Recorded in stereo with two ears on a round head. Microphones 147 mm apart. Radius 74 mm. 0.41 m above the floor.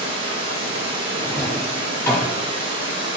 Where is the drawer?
20° left (ahead or behind), 1.2 m.